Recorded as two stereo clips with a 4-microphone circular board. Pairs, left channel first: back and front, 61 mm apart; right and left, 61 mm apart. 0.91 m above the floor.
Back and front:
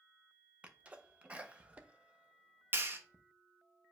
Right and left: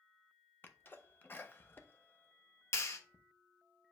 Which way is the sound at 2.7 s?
55° right.